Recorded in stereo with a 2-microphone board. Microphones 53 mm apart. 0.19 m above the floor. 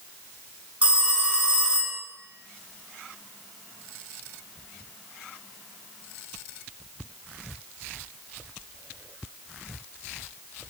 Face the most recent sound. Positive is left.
turn(degrees=-25)  # may be behind; listen again after turning